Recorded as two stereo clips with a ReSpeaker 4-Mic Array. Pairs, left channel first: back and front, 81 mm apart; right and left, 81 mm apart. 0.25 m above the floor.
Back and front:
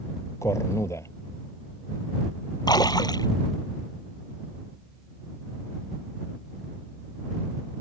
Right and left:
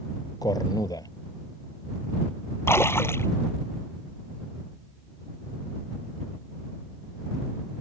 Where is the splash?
150° right.